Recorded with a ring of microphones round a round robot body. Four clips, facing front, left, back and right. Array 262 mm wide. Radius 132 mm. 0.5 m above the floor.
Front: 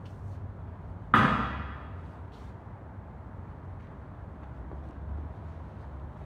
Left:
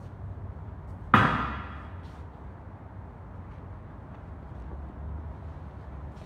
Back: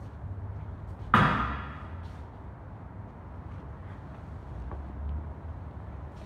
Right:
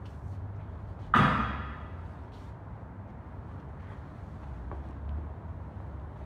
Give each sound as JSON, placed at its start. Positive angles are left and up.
{"t": 1.1, "sound": "a thud", "azimuth_deg": 85, "distance_m": 2.5}